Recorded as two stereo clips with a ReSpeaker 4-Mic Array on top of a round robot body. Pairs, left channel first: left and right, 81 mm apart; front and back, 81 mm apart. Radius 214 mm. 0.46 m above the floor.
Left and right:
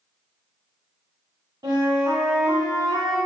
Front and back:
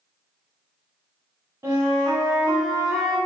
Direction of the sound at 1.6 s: 125° right.